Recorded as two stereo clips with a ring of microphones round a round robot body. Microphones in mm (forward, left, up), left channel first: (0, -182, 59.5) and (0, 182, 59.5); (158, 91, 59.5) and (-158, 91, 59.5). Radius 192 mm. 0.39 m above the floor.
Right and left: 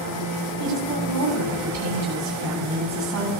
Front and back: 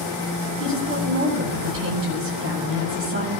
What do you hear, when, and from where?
0.6 s a woman speaking: 130° left, 8.5 m